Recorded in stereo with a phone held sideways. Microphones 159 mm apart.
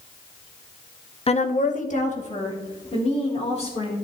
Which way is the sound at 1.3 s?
40° left (ahead or behind).